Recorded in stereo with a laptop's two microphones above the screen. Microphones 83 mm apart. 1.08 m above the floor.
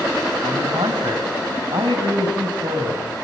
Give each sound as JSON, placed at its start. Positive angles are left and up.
{"t": 0.4, "sound": "a man speaking", "side_deg": -85, "distance_m": 6.0}